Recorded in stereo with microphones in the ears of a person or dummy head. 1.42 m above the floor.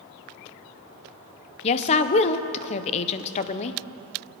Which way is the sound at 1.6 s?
35° left (ahead or behind).